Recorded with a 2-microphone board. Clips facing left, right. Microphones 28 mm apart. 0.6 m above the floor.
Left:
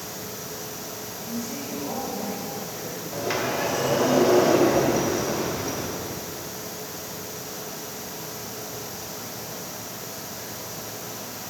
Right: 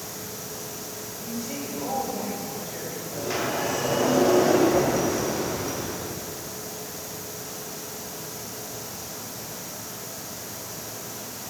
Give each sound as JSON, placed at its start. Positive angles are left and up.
{"t": 1.2, "sound": "a woman speaking", "side_deg": -60, "distance_m": 2.5}
{"t": 3.1, "sound": "a sliding door", "side_deg": 35, "distance_m": 1.5}